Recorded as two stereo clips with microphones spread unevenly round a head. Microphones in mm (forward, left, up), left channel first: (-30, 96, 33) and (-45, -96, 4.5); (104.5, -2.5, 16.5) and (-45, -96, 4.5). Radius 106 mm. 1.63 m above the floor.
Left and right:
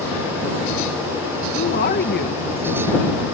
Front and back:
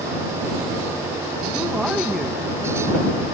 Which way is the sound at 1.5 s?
125° left.